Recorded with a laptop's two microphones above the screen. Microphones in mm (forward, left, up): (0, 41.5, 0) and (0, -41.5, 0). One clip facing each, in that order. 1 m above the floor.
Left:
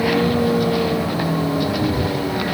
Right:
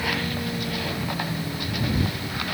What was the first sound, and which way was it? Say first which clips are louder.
A vehicle: left 11 dB; 80° left.